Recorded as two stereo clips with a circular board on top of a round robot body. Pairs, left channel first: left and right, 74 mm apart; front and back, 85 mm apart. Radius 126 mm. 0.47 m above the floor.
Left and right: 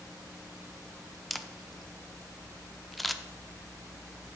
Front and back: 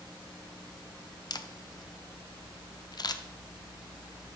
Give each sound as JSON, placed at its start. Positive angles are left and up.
{"t": 1.3, "sound": "a camera shutter", "azimuth_deg": 0, "distance_m": 0.7}